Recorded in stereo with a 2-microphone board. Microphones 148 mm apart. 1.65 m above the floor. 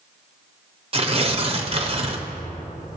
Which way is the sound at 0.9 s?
40° right (ahead or behind).